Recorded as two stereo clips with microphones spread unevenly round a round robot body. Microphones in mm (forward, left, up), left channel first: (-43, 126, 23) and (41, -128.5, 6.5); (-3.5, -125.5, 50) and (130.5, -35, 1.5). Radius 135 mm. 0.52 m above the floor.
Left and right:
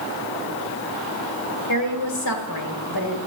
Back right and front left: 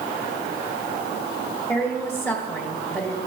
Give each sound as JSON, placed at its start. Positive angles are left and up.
{"t": 1.7, "sound": "a woman speaking", "azimuth_deg": 125, "distance_m": 2.0}